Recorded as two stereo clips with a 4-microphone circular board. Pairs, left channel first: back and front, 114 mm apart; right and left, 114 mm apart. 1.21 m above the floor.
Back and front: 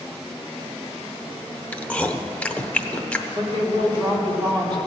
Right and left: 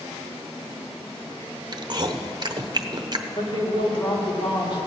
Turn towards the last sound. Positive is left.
turn(degrees=-45)